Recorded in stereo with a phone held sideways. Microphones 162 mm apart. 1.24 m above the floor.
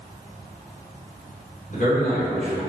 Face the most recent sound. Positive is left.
turn(degrees=55)  # may be behind; listen again after turning